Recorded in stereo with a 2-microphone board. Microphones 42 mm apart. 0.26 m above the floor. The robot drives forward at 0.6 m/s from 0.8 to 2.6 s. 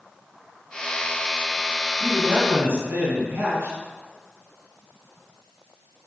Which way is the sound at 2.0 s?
60° right (ahead or behind).